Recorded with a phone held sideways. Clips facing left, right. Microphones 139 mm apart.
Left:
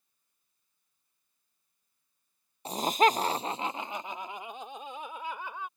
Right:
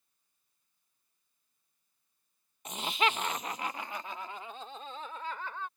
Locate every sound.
2.6 s laughter: 30° left (ahead or behind); by 5.7 s 10° left (ahead or behind)